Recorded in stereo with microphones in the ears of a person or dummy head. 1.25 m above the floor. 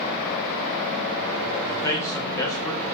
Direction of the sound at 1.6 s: 15° left (ahead or behind).